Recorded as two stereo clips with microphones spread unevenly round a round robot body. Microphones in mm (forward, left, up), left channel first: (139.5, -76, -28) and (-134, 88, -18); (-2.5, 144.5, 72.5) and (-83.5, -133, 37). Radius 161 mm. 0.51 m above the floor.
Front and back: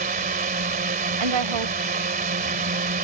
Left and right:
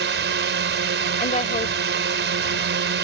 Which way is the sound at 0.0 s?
150° right.